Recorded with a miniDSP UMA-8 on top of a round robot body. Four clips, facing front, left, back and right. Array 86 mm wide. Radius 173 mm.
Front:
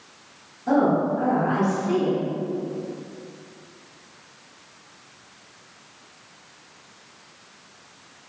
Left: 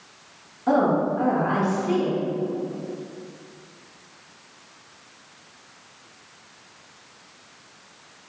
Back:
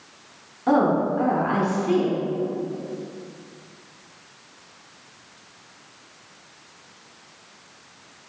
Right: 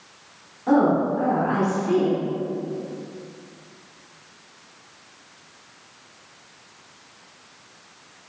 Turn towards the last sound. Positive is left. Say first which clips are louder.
# right 2 dB, back 1 dB
turn(degrees=165)